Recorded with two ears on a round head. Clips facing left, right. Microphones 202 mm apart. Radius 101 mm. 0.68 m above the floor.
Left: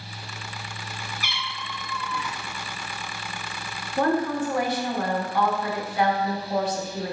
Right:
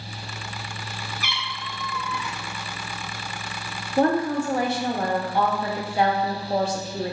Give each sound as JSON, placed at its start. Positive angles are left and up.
{"t": 1.2, "sound": "a cat meowing", "side_deg": -70, "distance_m": 0.6}
{"t": 4.0, "sound": "a woman speaking", "side_deg": -25, "distance_m": 0.6}